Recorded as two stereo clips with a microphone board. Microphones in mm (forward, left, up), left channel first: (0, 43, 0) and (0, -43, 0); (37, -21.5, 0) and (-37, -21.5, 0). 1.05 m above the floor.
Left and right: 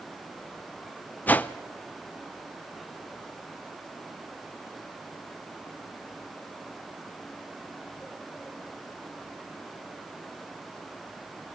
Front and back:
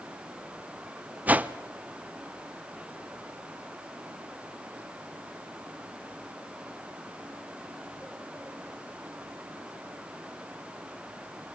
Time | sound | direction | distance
1.3 | a whoosh | 140° left | 0.5 m